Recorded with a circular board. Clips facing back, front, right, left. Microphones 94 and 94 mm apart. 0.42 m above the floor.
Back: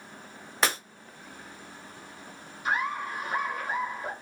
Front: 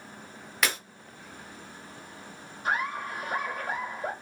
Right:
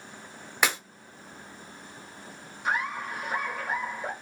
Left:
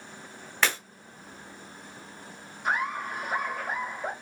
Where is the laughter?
Straight ahead, 1.8 m.